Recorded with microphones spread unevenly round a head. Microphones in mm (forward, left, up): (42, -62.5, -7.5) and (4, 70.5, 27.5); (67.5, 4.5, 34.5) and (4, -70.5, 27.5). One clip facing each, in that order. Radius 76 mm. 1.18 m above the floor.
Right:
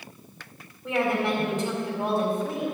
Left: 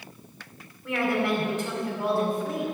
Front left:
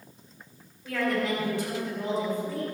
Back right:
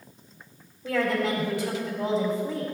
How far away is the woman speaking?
About 4 m.